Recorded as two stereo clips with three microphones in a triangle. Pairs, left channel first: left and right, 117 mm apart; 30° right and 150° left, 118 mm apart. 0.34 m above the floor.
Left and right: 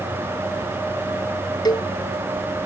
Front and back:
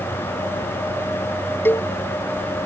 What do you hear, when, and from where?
1.6 s a cowbell: 40° left